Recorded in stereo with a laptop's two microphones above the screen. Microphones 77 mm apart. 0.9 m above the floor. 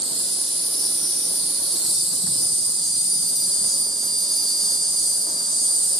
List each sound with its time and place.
0.0 s an insect: 5° left (ahead or behind), 0.8 m